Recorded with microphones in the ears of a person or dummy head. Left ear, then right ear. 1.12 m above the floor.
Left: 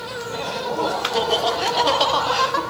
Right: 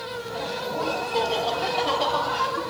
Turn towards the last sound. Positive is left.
turn(degrees=35)  # may be behind; listen again after turning